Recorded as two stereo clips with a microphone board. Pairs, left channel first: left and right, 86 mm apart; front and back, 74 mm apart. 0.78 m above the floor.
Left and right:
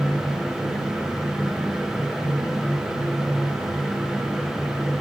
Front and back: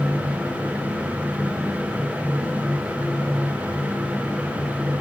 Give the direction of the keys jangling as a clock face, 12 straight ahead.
I don't hear keys jangling.